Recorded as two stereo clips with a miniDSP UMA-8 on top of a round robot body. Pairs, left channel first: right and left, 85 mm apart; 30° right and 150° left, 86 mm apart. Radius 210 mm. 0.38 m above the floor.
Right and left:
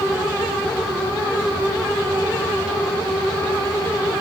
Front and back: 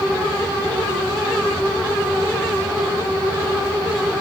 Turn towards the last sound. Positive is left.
No sound to turn to.